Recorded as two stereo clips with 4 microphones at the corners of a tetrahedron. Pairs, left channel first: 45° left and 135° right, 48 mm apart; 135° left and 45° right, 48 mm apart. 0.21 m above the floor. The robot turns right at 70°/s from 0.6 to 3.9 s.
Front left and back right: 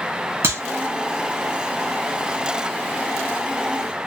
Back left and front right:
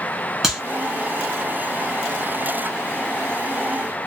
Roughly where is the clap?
Behind right.